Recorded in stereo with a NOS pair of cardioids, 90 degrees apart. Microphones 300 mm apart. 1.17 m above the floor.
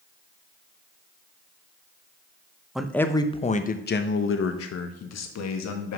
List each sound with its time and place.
2.8 s a man speaking: straight ahead, 0.9 m; by 6.0 s 65° left, 1.8 m